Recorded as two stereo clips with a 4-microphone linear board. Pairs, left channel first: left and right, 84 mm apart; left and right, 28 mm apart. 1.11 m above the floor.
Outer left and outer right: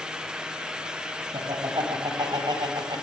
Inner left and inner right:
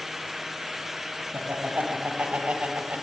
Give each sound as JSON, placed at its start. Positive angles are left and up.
{"t": 1.3, "sound": "laughter", "side_deg": -60, "distance_m": 7.0}